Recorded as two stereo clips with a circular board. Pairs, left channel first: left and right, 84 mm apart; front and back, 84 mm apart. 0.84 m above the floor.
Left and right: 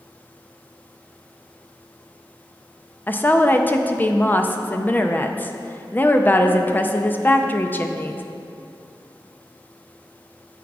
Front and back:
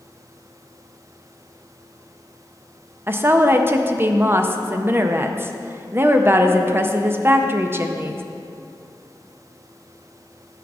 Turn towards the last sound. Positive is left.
turn(degrees=140)